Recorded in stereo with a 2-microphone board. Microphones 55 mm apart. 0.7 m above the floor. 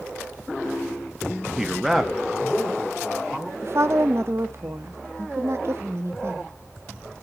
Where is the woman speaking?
55° right (ahead or behind), 0.8 m.